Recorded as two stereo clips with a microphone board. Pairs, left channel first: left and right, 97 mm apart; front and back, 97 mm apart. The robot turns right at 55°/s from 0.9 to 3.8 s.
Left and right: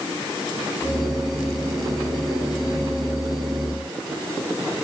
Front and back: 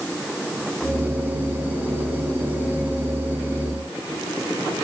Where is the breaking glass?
I don't hear breaking glass.